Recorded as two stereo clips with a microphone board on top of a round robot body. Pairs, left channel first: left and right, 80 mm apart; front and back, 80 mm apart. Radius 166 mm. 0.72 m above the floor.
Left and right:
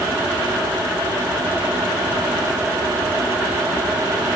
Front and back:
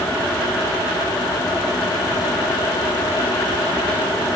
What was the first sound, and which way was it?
Only background noise.